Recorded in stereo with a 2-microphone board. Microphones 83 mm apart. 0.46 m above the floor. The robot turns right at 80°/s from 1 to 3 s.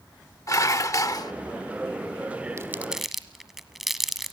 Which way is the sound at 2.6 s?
35° right (ahead or behind).